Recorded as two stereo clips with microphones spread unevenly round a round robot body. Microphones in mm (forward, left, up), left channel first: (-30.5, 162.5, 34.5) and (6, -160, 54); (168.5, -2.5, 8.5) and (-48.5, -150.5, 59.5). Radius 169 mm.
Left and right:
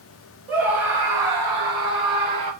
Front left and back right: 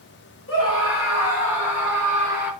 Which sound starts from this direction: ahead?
A scream, at 0.5 s.